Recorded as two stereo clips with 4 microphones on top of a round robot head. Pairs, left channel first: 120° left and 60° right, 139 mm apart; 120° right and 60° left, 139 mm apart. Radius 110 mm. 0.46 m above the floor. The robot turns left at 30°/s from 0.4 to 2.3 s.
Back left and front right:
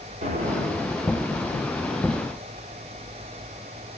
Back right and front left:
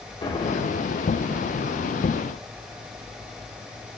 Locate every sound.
0.2 s an explosion: 75° right, 1.1 m; by 1.1 s 95° right, 1.1 m